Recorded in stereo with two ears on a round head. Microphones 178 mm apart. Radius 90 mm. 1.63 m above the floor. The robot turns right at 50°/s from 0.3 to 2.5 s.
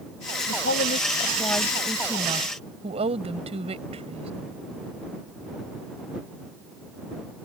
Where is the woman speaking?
110° left; by 4.3 s 145° right.